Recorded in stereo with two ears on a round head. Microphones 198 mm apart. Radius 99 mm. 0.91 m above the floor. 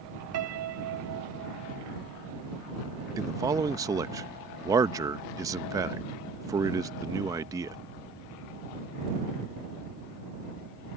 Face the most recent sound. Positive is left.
turn(degrees=-15)  # may be behind; listen again after turning